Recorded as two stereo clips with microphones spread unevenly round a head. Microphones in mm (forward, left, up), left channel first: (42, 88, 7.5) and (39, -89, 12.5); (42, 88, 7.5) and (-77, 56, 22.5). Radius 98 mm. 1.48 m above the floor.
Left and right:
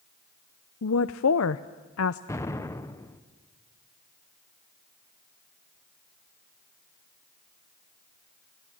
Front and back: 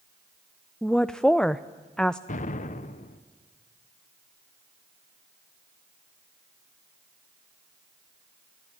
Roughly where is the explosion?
Ahead.